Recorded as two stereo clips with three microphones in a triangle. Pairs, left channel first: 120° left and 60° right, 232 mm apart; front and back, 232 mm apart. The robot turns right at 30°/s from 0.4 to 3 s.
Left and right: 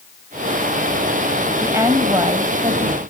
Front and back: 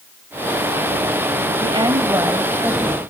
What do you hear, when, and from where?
1.6 s a woman speaking: 135° right, 1.3 m; by 3.0 s 90° right, 1.3 m